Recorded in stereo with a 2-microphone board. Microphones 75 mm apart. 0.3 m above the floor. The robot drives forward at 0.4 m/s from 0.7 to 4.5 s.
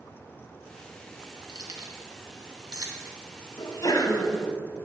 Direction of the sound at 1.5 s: 65° right (ahead or behind).